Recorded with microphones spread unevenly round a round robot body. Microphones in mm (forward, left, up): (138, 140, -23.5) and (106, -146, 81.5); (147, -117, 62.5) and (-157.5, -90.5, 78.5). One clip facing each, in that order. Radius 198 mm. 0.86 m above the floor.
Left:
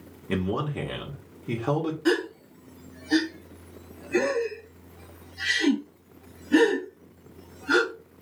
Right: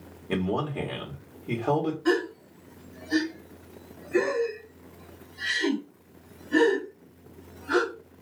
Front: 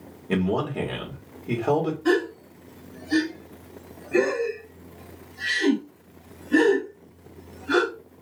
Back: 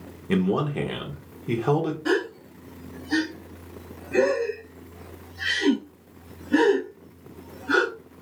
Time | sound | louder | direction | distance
0.3 | a man speaking | even, back 1 dB | 110° left | 1.1 m
2.0 | a gasp | left 3 dB, front 2 dB | 85° left | 1.0 m